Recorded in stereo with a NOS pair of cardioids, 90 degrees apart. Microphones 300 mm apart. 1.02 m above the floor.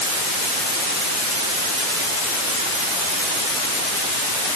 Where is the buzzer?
No buzzer in this recording.